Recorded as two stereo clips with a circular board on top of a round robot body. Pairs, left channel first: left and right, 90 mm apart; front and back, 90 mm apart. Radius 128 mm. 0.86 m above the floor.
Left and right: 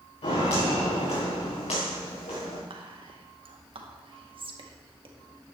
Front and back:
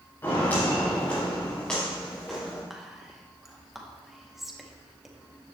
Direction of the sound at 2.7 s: 95° right.